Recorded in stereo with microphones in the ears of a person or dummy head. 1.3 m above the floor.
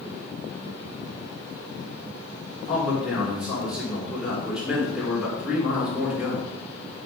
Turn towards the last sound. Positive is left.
turn(degrees=-5)  # may be behind; listen again after turning